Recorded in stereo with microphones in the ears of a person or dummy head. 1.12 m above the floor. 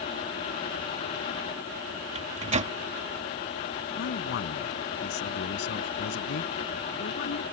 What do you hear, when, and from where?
2.1 s a microwave: 40° right (ahead or behind)
4.0 s a man speaking: 60° left (ahead or behind)